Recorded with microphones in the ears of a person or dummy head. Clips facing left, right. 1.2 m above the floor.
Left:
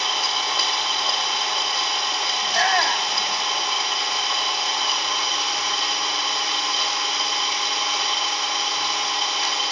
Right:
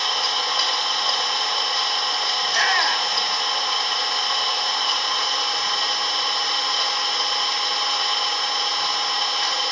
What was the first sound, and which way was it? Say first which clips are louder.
An engine running: even; 5° left (ahead or behind).